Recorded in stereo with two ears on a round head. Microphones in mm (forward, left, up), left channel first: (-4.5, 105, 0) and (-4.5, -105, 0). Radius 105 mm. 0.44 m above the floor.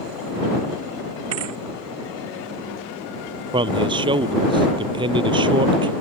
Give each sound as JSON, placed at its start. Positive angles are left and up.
{"t": 1.3, "sound": "a thud", "side_deg": -65}
{"t": 3.5, "sound": "a man speaking", "side_deg": -20}